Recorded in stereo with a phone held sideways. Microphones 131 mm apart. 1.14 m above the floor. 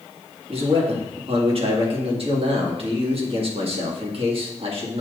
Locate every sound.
0.5 s a man speaking: 50° right (ahead or behind), 1.9 m